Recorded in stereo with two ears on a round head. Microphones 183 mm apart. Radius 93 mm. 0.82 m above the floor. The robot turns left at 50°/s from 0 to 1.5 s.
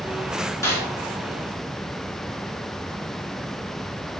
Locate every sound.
0.6 s a snare drum: 15° left (ahead or behind), 3.5 m; by 0.8 s 5° left (ahead or behind), 3.5 m